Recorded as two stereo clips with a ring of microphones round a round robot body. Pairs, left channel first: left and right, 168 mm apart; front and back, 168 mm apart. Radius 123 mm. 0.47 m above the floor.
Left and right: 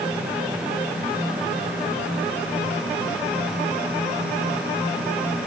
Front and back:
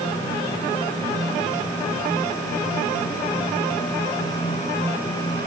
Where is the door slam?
I don't hear a door slam.